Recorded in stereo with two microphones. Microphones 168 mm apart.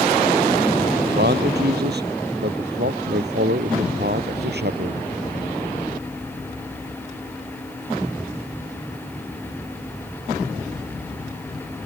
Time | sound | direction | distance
1.1 | a man speaking | 80° right | ?